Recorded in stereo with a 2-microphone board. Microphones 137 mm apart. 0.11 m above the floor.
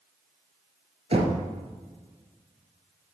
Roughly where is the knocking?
Right.